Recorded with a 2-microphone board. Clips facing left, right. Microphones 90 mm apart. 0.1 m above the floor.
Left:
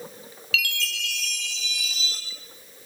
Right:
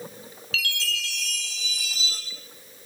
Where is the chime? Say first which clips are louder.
Left 1 dB; 35° right (ahead or behind), 7 m.